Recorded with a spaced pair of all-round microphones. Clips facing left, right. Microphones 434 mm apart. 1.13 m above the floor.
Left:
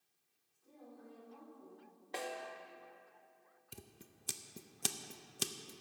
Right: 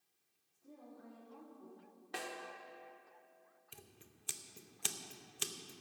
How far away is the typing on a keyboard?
I don't hear typing on a keyboard.